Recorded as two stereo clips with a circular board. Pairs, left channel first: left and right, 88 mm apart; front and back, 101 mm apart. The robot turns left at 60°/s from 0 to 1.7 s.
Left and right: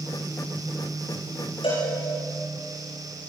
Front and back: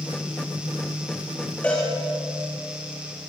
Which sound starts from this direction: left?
A cowbell, at 1.6 s.